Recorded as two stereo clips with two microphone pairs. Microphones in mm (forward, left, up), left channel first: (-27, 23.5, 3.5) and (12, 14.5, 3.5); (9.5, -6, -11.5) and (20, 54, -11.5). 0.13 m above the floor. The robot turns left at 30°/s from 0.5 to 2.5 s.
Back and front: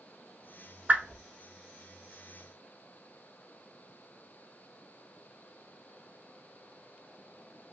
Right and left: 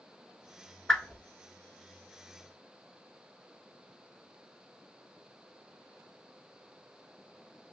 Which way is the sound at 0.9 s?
25° right.